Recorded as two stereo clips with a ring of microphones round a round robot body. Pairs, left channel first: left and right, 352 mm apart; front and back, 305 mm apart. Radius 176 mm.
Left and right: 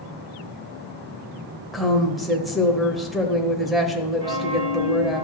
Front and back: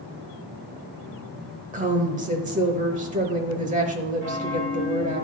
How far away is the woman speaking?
About 1.0 m.